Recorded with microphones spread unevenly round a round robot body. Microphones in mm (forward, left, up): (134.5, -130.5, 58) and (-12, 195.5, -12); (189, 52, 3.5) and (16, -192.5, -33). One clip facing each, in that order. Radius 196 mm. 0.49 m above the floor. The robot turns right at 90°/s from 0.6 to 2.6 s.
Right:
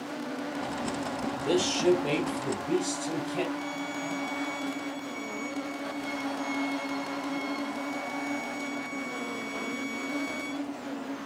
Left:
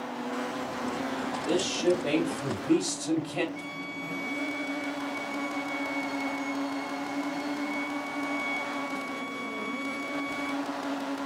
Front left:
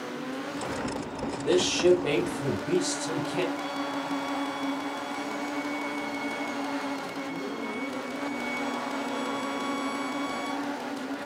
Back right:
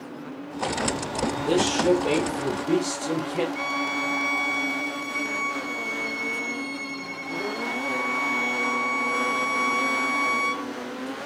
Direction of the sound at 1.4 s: 25° right.